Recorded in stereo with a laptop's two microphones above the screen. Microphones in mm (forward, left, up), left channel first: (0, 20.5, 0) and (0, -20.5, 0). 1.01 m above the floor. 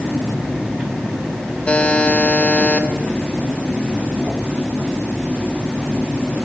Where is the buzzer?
35° left (ahead or behind), 0.9 m.